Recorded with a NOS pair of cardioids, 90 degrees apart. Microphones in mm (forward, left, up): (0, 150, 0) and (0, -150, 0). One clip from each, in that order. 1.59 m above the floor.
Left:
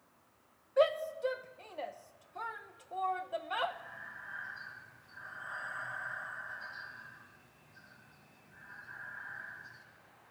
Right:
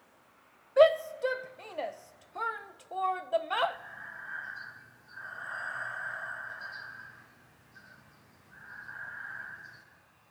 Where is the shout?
25° right, 0.8 m.